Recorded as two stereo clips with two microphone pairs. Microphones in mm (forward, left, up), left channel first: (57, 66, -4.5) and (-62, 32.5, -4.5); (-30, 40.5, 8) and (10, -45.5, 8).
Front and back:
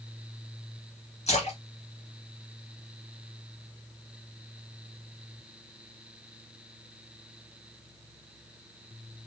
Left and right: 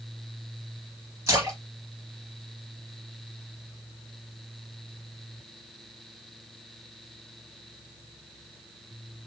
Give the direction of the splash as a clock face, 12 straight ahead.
12 o'clock.